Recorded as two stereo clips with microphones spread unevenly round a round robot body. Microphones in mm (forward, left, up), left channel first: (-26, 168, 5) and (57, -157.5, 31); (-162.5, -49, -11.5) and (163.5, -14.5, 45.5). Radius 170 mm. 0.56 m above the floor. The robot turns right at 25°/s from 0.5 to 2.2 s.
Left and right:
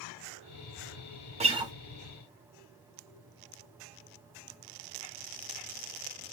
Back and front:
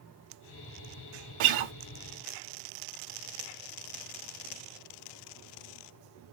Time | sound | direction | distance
1.4 | a guitar | straight ahead | 0.7 m